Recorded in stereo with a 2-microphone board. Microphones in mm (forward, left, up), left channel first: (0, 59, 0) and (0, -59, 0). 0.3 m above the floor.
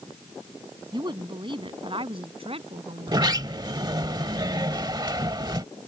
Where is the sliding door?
35° right (ahead or behind).